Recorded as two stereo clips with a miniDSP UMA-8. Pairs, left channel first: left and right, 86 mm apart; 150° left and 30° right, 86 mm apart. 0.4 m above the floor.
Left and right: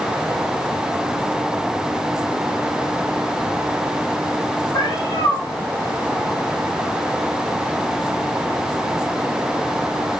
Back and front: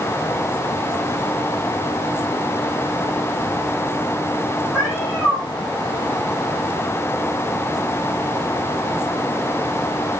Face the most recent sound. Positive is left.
turn(degrees=60)